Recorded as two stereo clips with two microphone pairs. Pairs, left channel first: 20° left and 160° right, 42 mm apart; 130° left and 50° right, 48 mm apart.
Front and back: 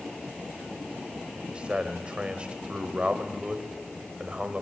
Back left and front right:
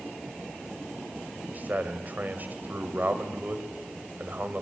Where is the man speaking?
100° right, 2.5 m.